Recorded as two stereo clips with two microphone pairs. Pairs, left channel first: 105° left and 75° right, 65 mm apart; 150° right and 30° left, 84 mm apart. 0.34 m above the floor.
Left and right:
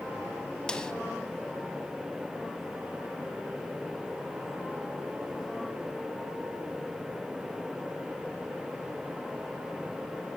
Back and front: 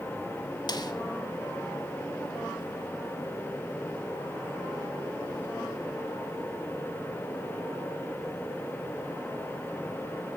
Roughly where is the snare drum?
Behind.